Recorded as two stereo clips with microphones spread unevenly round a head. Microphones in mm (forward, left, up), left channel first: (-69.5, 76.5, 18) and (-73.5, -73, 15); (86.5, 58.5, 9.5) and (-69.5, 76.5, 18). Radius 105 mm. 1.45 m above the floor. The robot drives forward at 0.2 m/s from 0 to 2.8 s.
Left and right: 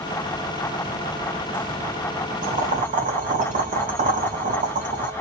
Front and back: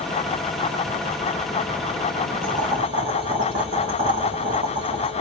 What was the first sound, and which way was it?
Boiling, 120° right.